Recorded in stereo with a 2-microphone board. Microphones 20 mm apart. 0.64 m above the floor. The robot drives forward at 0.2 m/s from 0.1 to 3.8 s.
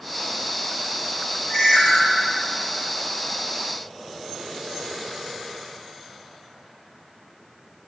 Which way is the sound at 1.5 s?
75° left (ahead or behind).